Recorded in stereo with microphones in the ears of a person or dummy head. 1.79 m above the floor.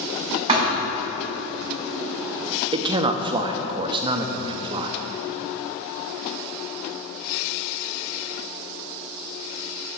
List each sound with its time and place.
0.5 s a thud: 20° right (ahead or behind), 2 m
2.7 s a man speaking: 25° right (ahead or behind), 0.6 m